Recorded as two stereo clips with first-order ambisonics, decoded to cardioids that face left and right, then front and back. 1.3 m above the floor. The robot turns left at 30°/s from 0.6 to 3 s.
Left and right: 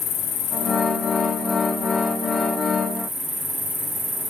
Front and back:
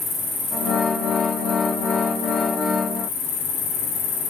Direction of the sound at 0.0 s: 50° left.